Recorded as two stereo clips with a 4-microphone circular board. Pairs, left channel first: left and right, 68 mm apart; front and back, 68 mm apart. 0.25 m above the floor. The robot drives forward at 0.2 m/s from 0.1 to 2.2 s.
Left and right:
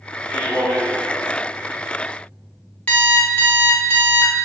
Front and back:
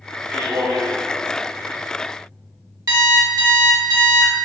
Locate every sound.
0.3 s a man speaking: 175° right, 1.8 m
2.9 s an alarm clock: 160° left, 0.7 m